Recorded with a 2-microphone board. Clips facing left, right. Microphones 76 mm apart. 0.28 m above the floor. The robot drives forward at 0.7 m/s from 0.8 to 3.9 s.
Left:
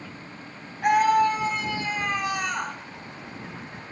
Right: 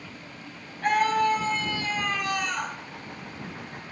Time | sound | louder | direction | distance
0.8 | a scream | left 3 dB | 15° left (ahead or behind) | 2.5 m